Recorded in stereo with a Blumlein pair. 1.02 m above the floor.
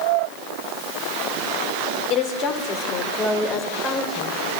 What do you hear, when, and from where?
2.1 s a woman speaking: 40° left, 3 m; by 4.6 s 5° left, 4 m